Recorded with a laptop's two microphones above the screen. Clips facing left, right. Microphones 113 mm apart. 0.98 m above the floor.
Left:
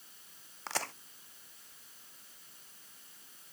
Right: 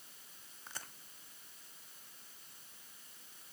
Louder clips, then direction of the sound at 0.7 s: Left 14 dB; 80° left.